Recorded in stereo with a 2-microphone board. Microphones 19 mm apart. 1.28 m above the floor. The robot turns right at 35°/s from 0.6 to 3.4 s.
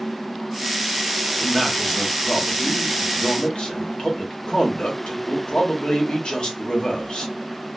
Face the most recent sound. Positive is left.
turn(degrees=65)